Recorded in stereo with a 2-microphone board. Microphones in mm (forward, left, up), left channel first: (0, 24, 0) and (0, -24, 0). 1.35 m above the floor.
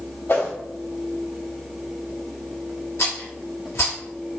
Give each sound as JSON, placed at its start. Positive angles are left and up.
{"t": 0.3, "sound": "a whoosh", "side_deg": 65, "distance_m": 1.6}
{"t": 3.0, "sound": "a rattle", "side_deg": 75, "distance_m": 1.6}